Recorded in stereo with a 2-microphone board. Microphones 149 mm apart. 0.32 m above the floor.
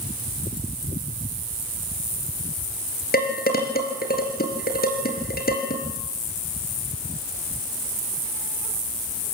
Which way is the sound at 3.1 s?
80° left.